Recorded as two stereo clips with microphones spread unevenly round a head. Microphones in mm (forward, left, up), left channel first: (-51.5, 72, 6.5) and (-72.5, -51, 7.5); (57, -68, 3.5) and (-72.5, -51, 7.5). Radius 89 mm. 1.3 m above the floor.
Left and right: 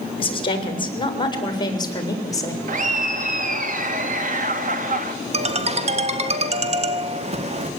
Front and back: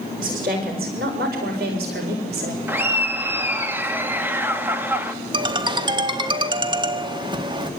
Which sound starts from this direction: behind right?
A ringtone, at 5.3 s.